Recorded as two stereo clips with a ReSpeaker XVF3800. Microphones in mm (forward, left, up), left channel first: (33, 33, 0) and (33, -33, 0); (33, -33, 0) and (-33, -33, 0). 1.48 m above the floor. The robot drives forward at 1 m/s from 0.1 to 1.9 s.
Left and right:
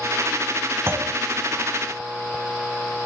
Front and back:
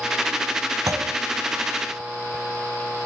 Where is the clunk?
140° right, 1.1 m; by 1.2 s 150° right, 1.3 m.